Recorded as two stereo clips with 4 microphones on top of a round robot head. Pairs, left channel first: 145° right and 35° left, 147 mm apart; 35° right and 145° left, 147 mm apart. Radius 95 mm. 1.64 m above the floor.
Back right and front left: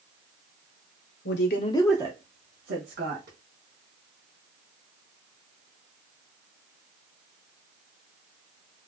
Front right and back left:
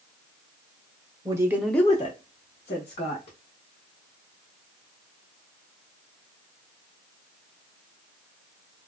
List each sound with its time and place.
1.2 s a woman speaking: 145° right, 0.9 m; by 3.4 s 20° left, 1.9 m